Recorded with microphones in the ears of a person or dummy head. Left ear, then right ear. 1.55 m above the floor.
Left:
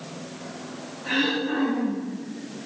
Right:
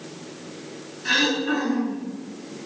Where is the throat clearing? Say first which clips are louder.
Right 3 dB; 75° right (ahead or behind), 6 m.